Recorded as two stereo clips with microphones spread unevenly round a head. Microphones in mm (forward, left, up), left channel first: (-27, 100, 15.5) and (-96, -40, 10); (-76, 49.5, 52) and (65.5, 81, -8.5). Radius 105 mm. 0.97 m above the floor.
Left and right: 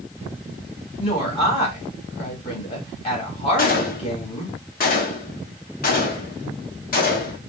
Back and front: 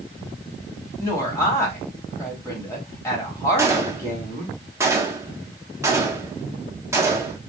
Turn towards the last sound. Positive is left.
turn(degrees=90)